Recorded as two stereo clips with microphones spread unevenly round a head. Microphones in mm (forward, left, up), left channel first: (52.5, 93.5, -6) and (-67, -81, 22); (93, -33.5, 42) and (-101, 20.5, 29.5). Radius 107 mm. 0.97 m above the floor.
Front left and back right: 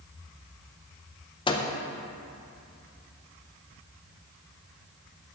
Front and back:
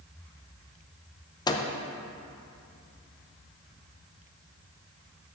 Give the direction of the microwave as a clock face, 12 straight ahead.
11 o'clock.